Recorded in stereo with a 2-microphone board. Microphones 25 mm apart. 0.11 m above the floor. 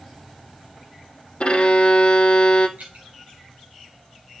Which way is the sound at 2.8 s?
60° right (ahead or behind).